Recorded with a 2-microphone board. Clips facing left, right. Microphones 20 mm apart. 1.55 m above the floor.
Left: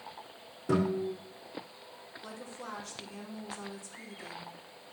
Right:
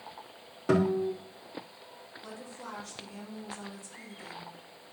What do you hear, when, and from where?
0.7 s a guitar: 60° right (ahead or behind), 3.5 m
2.2 s a woman speaking: 5° right (ahead or behind), 3 m